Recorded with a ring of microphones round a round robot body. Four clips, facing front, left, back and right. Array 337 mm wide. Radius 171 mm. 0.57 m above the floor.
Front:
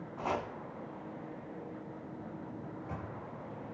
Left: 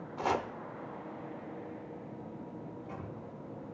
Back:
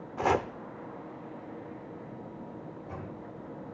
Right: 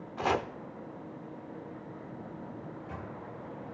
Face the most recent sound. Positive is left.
turn(degrees=-15)